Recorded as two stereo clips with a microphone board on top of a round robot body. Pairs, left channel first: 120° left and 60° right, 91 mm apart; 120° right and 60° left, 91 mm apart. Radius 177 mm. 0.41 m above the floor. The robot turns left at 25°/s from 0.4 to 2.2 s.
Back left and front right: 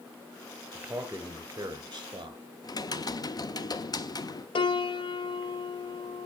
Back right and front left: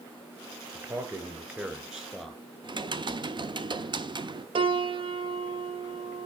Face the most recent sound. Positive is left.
turn(degrees=90)